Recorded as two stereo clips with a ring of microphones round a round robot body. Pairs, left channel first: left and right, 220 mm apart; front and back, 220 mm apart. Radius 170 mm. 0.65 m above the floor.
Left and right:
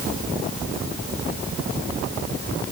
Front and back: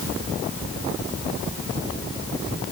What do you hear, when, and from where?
Only background noise.